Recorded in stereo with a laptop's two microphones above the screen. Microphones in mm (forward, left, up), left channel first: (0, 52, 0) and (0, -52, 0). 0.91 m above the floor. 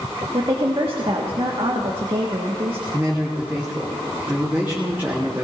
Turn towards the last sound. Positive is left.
turn(degrees=-20)  # may be behind; listen again after turning